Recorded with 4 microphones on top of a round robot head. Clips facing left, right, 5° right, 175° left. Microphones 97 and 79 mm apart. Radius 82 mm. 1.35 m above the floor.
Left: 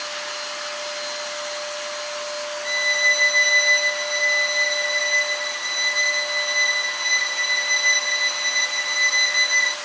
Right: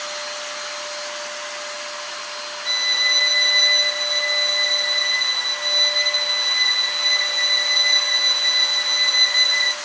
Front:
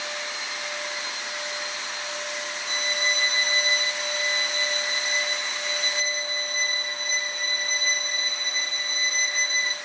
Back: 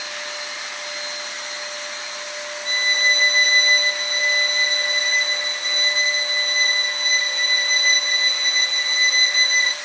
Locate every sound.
2.6 s a violin: 175° right, 0.7 m